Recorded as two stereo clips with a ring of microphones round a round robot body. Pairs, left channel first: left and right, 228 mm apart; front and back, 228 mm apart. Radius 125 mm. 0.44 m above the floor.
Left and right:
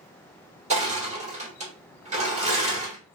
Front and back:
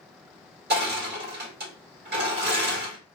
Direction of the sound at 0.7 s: 145° right.